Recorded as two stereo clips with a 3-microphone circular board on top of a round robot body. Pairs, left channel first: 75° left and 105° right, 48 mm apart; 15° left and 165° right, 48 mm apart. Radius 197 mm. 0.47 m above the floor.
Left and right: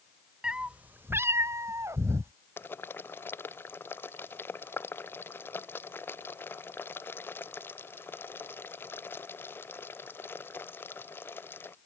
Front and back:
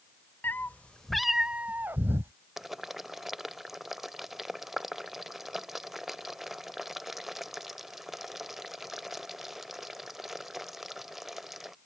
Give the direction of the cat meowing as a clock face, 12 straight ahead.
1 o'clock.